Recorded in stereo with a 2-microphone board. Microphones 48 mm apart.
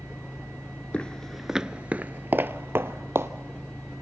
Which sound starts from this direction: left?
Footsteps, at 0.9 s.